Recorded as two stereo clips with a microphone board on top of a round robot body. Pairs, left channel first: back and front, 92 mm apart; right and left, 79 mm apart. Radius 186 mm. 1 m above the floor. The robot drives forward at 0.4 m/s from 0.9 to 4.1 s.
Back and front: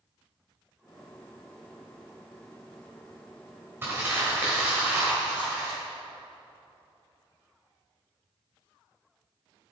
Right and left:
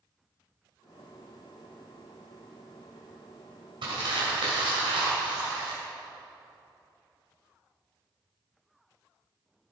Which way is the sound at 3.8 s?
70° left.